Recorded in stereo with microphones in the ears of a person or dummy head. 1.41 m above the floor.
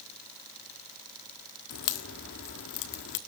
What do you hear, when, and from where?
1.7 s a crack: 50° left (ahead or behind), 1.3 m